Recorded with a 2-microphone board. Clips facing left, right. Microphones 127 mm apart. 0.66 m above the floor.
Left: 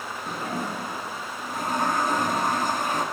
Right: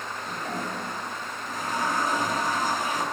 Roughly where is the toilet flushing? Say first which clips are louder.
Left 3 dB; left.